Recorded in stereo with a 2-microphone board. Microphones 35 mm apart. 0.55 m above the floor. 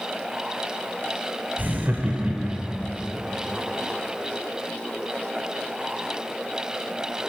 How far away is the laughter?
About 1.7 m.